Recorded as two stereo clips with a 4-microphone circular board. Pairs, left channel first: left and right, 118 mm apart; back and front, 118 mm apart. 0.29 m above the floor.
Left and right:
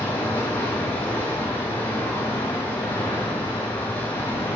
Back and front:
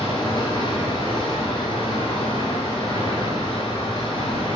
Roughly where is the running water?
Behind.